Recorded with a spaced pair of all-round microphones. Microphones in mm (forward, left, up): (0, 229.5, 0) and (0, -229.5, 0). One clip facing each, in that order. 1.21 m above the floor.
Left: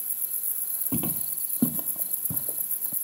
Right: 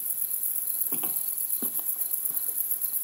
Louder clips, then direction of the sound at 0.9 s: Left 11 dB; 60° left (ahead or behind).